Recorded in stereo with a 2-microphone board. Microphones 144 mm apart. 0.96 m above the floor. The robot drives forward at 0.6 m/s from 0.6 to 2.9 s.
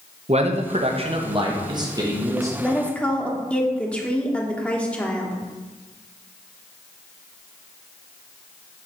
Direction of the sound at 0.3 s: 45° right (ahead or behind).